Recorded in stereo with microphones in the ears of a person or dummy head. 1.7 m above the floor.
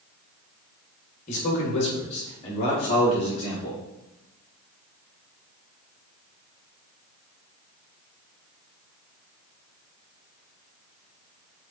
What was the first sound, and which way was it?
A man speaking, 40° left (ahead or behind).